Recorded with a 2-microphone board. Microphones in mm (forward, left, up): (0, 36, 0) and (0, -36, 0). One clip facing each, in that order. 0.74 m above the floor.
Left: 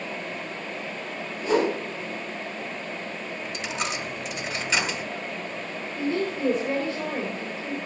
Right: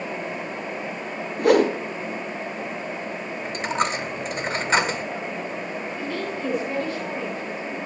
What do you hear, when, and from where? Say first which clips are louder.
1.4 s a whoosh: right 6 dB; 75° right (ahead or behind), 3 m
3.5 s a dropped coin: right 8 dB; 45° right (ahead or behind), 1.5 m
6.0 s a woman speaking: left 6 dB; 25° left (ahead or behind), 3.5 m